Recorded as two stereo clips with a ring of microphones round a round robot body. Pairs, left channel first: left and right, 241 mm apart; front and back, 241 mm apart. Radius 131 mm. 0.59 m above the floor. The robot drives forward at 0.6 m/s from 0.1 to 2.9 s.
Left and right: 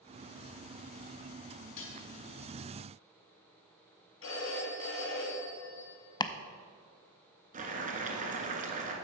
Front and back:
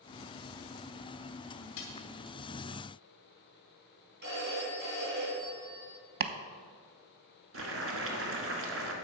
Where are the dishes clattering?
45° left, 1.7 m; by 2.0 s 50° left, 1.6 m.